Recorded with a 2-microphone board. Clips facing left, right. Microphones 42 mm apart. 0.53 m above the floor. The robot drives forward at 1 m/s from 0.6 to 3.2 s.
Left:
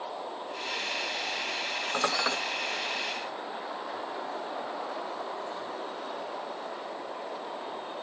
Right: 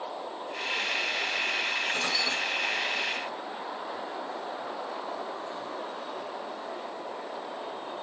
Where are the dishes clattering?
45° left (ahead or behind), 1.3 m; by 2.4 s 60° left (ahead or behind), 1.1 m.